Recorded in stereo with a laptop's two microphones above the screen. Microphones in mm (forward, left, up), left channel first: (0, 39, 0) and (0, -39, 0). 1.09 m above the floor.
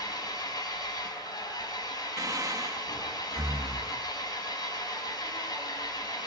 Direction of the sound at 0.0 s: 60° left (ahead or behind).